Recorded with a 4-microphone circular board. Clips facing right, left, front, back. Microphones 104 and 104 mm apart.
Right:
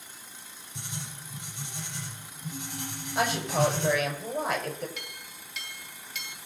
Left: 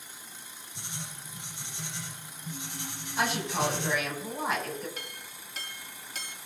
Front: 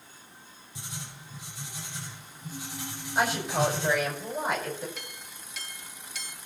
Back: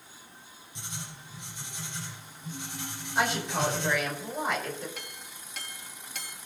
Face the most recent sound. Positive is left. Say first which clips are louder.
# left 1 dB, even
turn(degrees=140)